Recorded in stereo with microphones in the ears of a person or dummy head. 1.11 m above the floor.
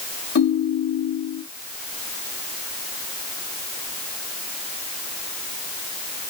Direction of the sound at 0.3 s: 60° left (ahead or behind).